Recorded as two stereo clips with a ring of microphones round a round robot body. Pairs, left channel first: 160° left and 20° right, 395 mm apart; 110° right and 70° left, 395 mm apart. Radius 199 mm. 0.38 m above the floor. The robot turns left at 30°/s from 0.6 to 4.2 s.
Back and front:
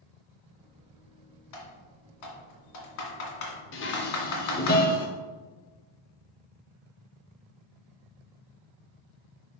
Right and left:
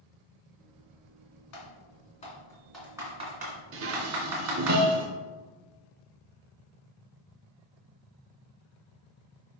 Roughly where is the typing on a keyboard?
Behind.